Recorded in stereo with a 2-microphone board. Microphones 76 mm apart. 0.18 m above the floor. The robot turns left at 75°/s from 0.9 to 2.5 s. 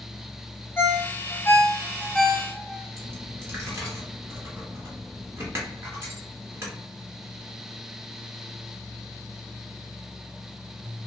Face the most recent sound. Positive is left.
turn(degrees=-35)  # may be behind; listen again after turning